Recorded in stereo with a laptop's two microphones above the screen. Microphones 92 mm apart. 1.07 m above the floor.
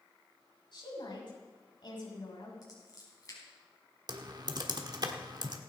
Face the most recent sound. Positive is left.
turn(degrees=-50)  # may be behind; listen again after turning